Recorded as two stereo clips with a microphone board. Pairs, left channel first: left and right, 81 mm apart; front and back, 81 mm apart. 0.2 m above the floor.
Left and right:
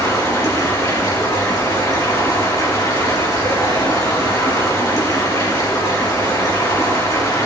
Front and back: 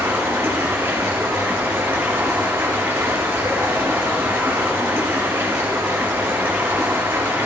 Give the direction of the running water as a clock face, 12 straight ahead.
8 o'clock.